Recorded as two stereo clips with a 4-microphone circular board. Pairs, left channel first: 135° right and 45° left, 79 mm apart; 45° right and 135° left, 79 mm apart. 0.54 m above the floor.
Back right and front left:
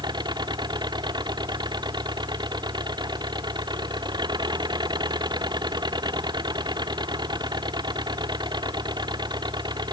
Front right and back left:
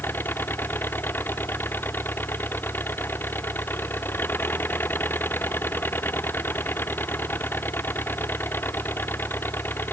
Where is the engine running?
20° left.